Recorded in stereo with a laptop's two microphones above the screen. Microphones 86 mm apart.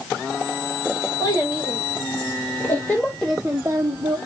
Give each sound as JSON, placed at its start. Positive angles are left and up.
{"t": 1.2, "sound": "a child speaking", "side_deg": 45, "distance_m": 1.6}